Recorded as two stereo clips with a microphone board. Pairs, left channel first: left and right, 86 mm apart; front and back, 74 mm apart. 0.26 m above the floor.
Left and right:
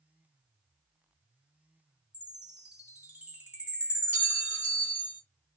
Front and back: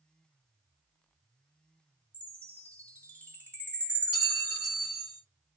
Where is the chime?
30° right, 1.4 m.